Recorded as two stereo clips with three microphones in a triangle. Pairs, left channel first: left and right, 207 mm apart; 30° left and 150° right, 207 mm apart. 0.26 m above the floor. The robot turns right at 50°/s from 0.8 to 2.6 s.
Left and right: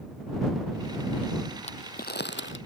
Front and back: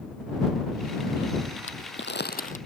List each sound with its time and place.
1.6 s crumpling: 30° left; by 2.6 s 80° left